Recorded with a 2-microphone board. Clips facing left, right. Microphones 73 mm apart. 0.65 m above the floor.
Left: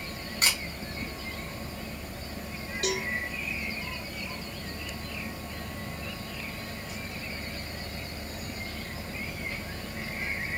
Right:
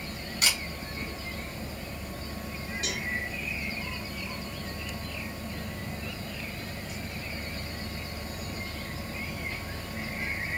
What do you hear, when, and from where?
0.4 s a camera shutter: 40° left (ahead or behind), 1.7 m
2.8 s a cowbell: 55° left (ahead or behind), 1.7 m